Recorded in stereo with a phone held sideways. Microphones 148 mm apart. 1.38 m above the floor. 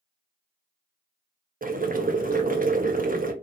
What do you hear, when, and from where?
1.6 s boiling: 70° right (ahead or behind), 0.5 m